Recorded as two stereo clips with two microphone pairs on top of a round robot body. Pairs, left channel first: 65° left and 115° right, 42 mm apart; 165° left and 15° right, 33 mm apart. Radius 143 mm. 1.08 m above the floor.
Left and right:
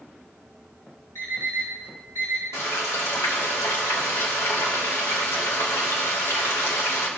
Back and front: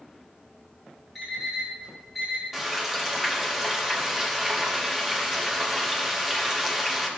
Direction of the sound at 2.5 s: 65° left.